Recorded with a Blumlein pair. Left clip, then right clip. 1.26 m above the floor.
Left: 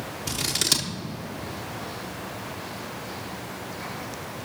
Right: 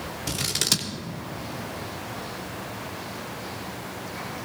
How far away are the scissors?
About 1.1 m.